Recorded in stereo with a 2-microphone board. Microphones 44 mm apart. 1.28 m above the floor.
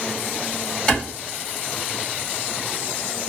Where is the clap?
20° left (ahead or behind), 2 m.